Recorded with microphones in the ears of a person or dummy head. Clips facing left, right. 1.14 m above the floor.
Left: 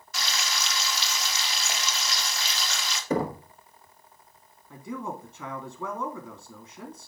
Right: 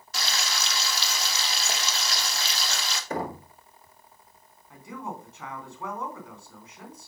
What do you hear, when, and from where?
0.1 s frying: 30° right (ahead or behind), 1.6 m
3.1 s knocking: 80° left, 1.2 m
4.7 s a man speaking: 85° left, 2.5 m